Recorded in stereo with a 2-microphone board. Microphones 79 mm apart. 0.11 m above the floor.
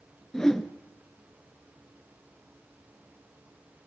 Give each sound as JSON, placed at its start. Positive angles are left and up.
{"t": 0.3, "sound": "a whoosh", "side_deg": 10, "distance_m": 1.0}